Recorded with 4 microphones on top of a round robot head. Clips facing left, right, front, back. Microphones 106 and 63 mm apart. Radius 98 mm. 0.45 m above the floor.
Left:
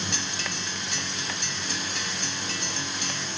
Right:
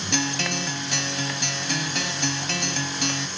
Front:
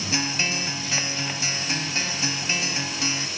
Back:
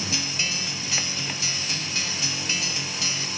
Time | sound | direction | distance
0.1 | a guitar | 65° right | ?